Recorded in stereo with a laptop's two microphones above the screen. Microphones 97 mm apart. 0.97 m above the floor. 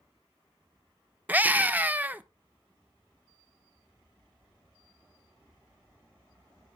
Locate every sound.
1.3 s a scream: 15° right (ahead or behind), 0.8 m